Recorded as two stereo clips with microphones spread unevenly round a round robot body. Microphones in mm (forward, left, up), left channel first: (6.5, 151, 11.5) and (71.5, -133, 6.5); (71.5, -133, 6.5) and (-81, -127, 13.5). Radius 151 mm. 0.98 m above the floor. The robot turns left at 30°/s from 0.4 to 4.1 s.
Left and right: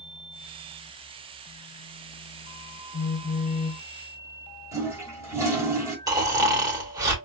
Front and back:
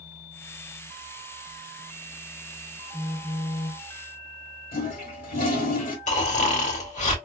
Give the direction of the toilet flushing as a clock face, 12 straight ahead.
12 o'clock.